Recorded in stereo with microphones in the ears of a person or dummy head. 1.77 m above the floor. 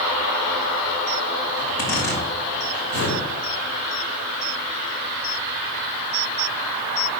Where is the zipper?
65° left (ahead or behind), 4 m.